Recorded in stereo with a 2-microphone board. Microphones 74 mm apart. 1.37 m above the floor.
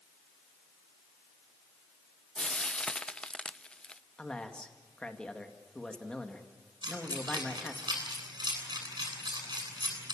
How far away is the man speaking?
About 2 m.